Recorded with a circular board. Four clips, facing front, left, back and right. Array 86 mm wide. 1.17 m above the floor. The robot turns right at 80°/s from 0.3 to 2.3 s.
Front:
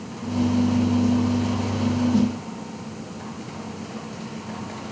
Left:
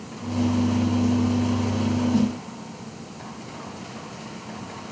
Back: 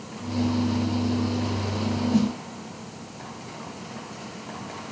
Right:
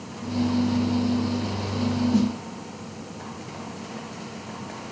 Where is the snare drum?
145° right, 1.7 m; by 2.3 s 130° right, 1.7 m.